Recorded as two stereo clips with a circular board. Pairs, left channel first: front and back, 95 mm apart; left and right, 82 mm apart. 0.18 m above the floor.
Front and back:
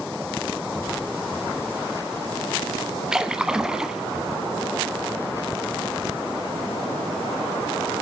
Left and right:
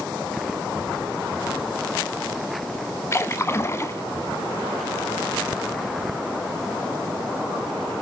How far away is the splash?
About 0.6 m.